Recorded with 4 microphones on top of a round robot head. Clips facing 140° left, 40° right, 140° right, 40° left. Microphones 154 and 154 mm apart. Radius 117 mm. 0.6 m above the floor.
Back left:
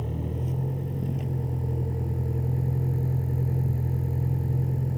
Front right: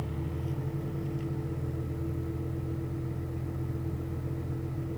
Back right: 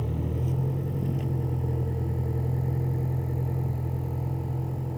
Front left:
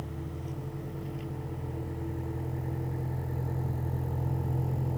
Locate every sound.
0.0 s a vehicle: 170° right; by 5.0 s 125° left